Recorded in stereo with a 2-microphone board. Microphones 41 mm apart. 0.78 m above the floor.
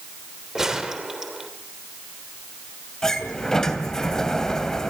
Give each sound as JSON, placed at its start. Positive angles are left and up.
{"t": 0.6, "sound": "a gunshot", "side_deg": -15, "distance_m": 3.0}
{"t": 3.0, "sound": "a sliding door", "side_deg": 10, "distance_m": 2.5}